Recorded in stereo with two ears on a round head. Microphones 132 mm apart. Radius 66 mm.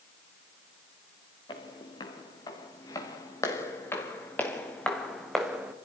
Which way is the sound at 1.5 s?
30° left (ahead or behind).